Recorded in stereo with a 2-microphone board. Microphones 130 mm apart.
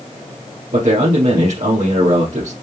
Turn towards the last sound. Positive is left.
turn(degrees=-60)  # may be behind; listen again after turning